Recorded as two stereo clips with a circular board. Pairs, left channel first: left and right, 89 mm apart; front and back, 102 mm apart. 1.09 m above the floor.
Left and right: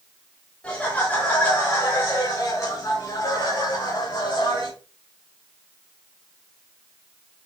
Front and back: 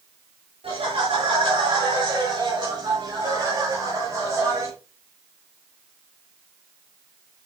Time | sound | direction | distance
0.6 | laughter | 165° left | 4.5 m